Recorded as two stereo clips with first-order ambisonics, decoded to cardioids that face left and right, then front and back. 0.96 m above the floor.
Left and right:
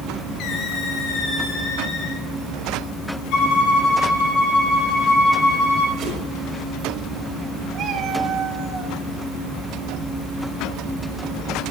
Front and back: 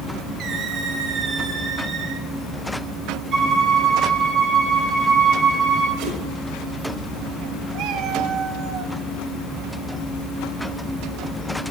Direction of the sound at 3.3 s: 125° left.